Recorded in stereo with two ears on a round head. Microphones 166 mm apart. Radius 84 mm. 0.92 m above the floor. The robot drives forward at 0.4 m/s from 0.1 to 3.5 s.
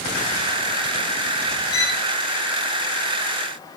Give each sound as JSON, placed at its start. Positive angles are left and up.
{"t": 1.7, "sound": "a violin", "side_deg": 80, "distance_m": 5.5}